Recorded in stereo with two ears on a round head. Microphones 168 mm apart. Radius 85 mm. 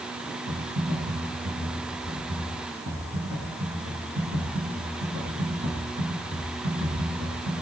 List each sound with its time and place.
0.5 s typing on a keyboard: 70° right (ahead or behind), 8.5 m